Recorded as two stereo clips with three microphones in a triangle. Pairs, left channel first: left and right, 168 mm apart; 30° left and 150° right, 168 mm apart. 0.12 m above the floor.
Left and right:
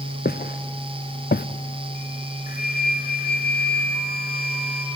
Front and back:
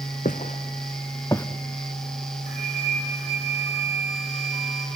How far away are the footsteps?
About 1.3 m.